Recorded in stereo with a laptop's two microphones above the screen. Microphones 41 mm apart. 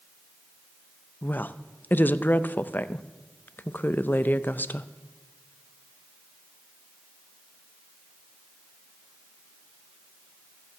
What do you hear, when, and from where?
1.2 s a woman speaking: 50° left (ahead or behind), 0.5 m